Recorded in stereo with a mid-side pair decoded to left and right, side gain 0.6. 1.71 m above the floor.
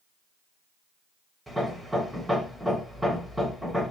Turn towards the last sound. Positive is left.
turn(degrees=-5)